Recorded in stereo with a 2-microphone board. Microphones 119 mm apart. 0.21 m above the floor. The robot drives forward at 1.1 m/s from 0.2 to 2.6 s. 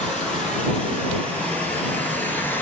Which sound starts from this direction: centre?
Running water, at 0.0 s.